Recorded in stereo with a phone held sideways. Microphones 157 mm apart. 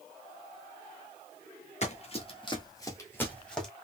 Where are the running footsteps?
45° left (ahead or behind), 1.1 m; by 3.7 s 5° left (ahead or behind), 1.3 m.